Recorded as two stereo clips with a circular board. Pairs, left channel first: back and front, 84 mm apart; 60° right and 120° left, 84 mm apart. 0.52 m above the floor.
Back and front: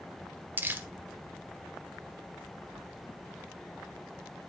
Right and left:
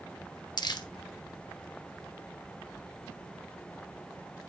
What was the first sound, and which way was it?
Crumpling, 60° right.